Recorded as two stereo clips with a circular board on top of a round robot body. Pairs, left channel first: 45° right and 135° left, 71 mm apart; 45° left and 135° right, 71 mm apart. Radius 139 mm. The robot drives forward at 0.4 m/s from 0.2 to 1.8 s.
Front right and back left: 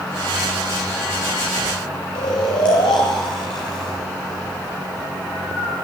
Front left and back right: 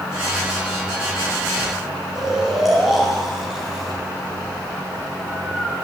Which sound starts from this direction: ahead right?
Snoring, at 2.1 s.